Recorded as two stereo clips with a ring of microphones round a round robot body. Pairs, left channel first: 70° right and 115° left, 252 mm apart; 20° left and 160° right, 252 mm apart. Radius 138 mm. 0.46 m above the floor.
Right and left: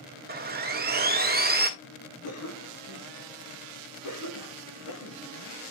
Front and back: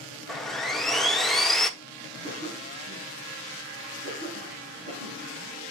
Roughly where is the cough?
Right.